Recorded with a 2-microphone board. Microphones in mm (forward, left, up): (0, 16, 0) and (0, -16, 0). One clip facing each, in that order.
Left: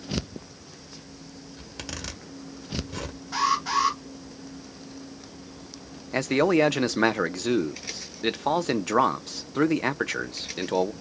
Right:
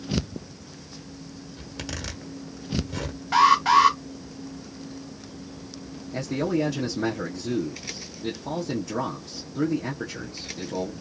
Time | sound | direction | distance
1.6 | a zipper | 5° left (ahead or behind) | 1.4 m
3.3 | an alarm | 65° right (ahead or behind) | 2.5 m
6.1 | a man speaking | 80° left | 0.6 m